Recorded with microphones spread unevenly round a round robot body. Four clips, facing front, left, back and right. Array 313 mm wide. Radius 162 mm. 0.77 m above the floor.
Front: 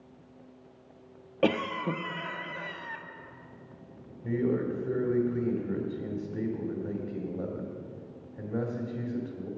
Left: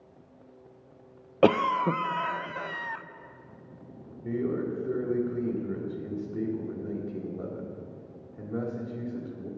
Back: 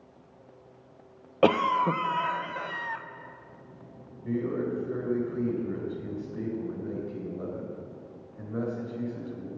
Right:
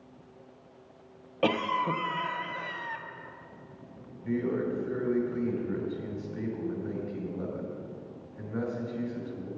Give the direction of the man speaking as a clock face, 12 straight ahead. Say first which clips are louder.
Even, front 1 dB; 11 o'clock.